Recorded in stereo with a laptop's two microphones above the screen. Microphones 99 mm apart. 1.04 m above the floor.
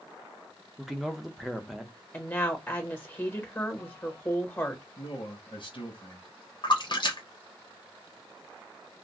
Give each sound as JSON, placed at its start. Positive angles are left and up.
{"t": 0.8, "sound": "a man speaking", "side_deg": 0, "distance_m": 0.6}
{"t": 2.1, "sound": "a woman speaking", "side_deg": 20, "distance_m": 1.6}
{"t": 5.0, "sound": "a man speaking", "side_deg": 50, "distance_m": 1.2}
{"t": 6.6, "sound": "a splash", "side_deg": 50, "distance_m": 0.9}